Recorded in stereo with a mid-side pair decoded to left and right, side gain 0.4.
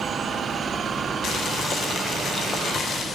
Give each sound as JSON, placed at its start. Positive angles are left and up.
{"t": 1.2, "sound": "boiling", "azimuth_deg": 60, "distance_m": 1.6}